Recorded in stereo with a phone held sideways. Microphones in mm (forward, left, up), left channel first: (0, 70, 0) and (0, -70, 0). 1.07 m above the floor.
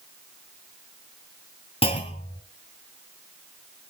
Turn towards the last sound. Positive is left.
turn(degrees=45)  # may be behind; listen again after turning